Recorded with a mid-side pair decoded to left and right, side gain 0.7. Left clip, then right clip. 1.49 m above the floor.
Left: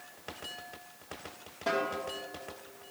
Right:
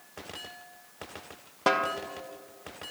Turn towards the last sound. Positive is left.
turn(degrees=-50)